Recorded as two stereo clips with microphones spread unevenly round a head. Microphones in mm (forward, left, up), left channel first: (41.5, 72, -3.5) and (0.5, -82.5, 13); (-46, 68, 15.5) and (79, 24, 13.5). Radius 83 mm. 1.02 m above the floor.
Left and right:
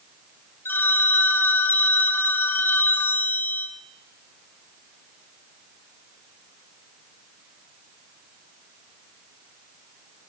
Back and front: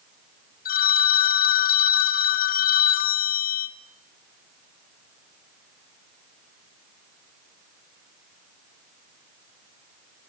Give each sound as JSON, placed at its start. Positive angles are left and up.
{"t": 0.7, "sound": "a phone ringing", "azimuth_deg": 155, "distance_m": 1.0}